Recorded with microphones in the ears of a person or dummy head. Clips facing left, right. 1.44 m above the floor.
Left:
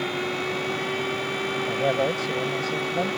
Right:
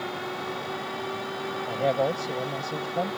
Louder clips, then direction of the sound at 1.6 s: Even; centre (ahead or behind).